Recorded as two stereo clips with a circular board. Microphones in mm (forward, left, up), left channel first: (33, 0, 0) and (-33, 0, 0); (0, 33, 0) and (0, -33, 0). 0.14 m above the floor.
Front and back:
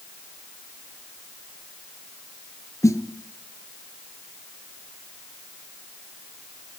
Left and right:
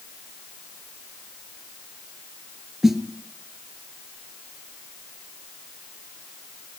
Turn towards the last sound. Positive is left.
turn(degrees=-5)